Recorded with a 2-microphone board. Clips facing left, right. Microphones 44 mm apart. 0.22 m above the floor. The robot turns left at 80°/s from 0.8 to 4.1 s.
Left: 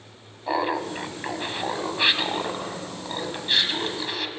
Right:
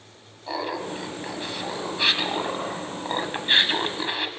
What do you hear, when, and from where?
0.5 s laughter: 125° left, 1.1 m; by 4.3 s 135° right, 1.1 m